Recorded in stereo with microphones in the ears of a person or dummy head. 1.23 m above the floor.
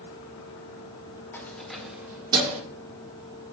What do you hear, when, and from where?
1.3 s keys jangling: 20° left (ahead or behind), 2.5 m; by 2.6 s 35° right (ahead or behind), 1.8 m